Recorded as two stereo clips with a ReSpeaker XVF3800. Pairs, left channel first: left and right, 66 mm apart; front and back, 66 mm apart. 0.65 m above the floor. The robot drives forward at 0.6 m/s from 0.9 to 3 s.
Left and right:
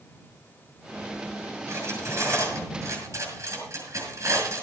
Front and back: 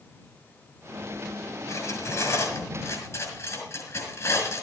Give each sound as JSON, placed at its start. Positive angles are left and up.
{"t": 1.7, "sound": "cutlery clinking", "azimuth_deg": -40, "distance_m": 7.0}